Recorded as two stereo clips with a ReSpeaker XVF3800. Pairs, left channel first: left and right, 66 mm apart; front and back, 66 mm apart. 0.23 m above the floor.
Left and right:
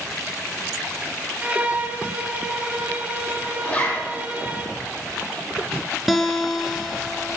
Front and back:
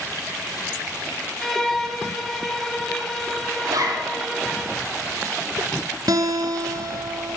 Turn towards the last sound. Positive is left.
turn(degrees=180)